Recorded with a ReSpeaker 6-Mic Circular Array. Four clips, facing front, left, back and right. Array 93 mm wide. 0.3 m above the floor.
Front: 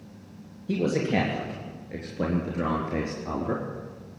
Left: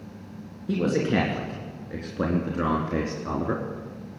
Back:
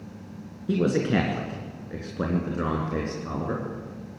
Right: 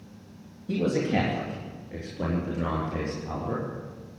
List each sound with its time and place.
0.7 s a man speaking: 150° left, 4 m; by 3.6 s 105° left, 4 m